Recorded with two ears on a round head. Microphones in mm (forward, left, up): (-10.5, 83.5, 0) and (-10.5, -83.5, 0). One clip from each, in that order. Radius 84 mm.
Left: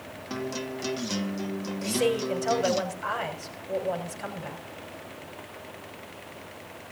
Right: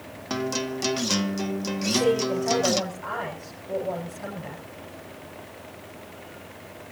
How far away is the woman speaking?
About 7.5 m.